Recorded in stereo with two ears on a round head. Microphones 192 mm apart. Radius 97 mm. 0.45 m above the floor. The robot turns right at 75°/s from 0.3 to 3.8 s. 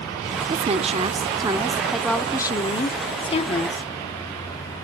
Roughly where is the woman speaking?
Right.